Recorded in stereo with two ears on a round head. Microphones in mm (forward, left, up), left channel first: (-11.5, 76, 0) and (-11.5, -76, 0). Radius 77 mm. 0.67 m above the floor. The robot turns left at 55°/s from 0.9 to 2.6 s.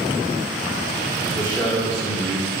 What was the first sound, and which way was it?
A man speaking, 25° left.